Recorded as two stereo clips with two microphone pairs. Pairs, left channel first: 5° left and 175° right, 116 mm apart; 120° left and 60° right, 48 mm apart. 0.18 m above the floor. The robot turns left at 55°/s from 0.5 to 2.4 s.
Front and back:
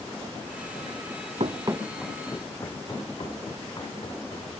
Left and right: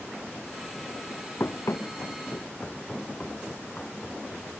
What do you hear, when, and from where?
1.4 s running footsteps: 160° left, 0.6 m; by 4.5 s 50° left, 2.5 m